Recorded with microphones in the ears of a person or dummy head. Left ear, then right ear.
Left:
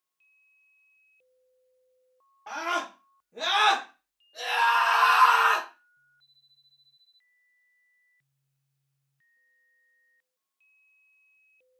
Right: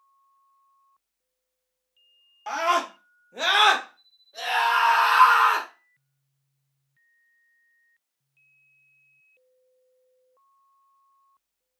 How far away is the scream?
About 1.3 m.